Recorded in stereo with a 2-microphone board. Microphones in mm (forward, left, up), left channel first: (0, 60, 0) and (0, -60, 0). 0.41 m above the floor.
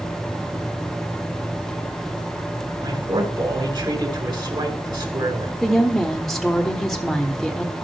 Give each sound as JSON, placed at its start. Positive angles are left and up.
{"t": 2.8, "sound": "a man speaking", "side_deg": -45, "distance_m": 3.0}
{"t": 5.6, "sound": "a woman speaking", "side_deg": 0, "distance_m": 0.9}